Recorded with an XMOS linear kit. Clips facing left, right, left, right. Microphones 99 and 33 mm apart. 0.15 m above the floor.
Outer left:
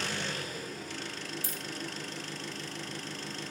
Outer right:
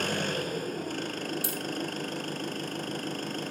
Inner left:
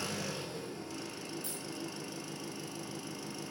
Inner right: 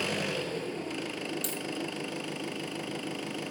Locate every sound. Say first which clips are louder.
0.0 s an engine running: outer right 6 dB, inner right 7 dB; 50° right (ahead or behind), 1.7 m
1.4 s a dropped coin: outer right 7 dB, inner right 7 dB; 70° right (ahead or behind), 2.5 m